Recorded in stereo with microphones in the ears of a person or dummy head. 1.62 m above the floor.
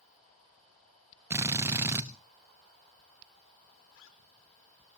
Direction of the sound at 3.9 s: 75° left (ahead or behind).